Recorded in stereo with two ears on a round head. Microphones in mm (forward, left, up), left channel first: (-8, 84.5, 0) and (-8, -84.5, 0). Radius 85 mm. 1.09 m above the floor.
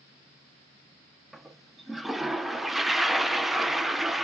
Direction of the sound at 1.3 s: Centre (ahead or behind).